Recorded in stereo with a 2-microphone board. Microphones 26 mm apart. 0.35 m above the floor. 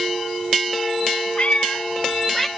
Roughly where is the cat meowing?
Left.